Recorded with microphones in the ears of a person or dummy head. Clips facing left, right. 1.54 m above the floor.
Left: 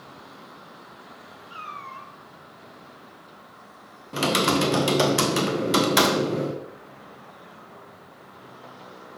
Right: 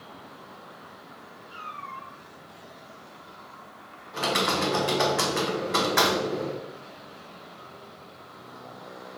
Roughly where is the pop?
I don't hear a pop.